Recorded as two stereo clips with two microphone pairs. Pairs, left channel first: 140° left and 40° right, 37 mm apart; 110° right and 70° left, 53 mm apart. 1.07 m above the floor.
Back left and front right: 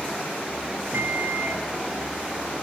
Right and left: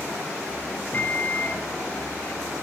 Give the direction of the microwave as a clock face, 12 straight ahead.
2 o'clock.